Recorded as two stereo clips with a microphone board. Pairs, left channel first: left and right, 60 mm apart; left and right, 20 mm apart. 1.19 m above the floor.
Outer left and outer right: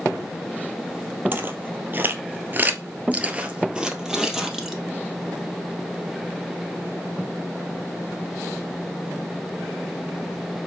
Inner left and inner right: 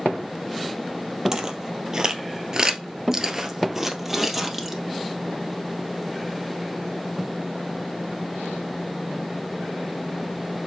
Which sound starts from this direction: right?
Footsteps, at 1.3 s.